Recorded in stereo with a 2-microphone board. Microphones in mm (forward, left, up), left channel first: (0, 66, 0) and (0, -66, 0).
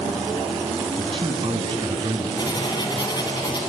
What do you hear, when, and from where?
1.0 s a man speaking: 40° right (ahead or behind), 3 m
2.4 s writing: 35° left (ahead or behind), 2 m